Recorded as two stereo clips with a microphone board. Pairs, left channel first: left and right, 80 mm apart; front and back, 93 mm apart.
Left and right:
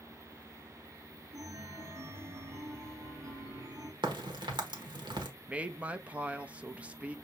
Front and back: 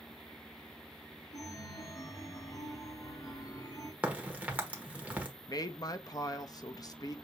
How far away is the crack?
About 1.2 m.